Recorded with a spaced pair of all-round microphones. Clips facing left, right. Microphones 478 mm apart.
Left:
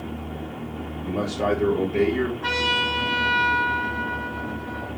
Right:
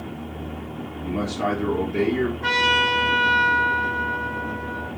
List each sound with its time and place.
1.0 s a man speaking: 45° right (ahead or behind), 0.9 m; by 2.3 s centre (ahead or behind), 0.9 m
2.4 s a trumpet: 40° right (ahead or behind), 1.0 m